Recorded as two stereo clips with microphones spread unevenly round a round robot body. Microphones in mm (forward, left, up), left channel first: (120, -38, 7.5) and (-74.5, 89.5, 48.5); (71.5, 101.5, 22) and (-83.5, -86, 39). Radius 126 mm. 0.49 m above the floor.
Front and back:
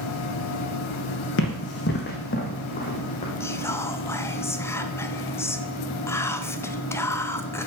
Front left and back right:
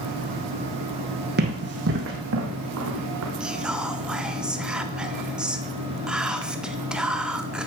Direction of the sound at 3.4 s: 40° right.